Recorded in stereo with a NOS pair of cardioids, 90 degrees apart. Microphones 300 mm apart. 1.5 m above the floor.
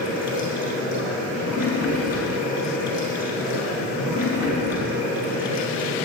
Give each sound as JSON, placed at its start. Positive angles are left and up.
{"t": 0.0, "sound": "running water", "azimuth_deg": 65, "distance_m": 4.5}